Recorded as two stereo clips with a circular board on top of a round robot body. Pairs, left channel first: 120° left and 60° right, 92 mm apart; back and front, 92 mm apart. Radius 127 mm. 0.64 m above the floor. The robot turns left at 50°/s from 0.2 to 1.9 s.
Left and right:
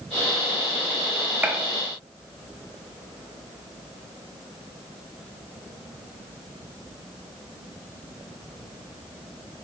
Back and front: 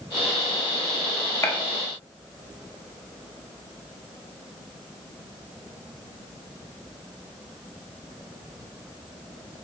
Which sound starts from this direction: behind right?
A gunshot, at 1.4 s.